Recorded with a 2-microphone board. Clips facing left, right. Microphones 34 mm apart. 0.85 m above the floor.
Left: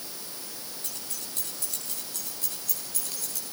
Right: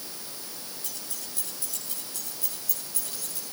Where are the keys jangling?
55° left (ahead or behind), 9 m; by 3.4 s 70° left (ahead or behind), 10.5 m.